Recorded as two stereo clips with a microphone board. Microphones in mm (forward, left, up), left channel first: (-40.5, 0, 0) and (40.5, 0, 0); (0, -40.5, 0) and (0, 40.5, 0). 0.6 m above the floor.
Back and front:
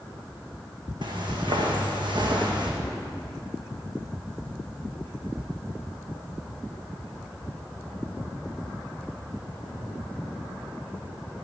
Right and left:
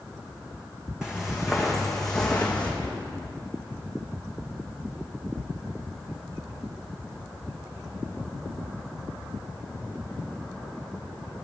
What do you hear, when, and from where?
1.0 s footsteps: 10° left, 2 m; by 2.7 s 15° right, 2 m
2.8 s a whoosh: 120° left, 1.9 m